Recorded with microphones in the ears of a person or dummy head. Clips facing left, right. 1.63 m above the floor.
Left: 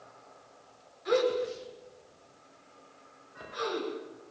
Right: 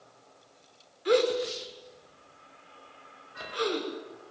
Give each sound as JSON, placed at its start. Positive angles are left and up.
{"t": 1.1, "sound": "a gasp", "side_deg": -55, "distance_m": 6.5}